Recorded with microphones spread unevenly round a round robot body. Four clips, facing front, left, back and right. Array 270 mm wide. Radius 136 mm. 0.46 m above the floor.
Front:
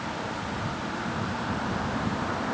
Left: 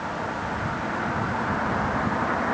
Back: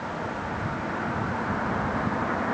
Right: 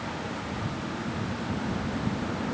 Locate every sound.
Only background noise.